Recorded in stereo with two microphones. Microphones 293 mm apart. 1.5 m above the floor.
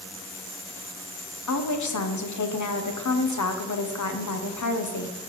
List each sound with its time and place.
1.5 s a woman speaking: 80° left, 0.6 m